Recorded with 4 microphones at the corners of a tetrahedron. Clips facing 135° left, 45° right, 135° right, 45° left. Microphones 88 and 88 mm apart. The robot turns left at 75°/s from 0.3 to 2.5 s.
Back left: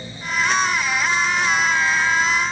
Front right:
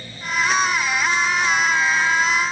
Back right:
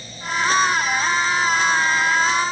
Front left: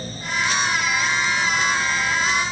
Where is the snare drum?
I don't hear a snare drum.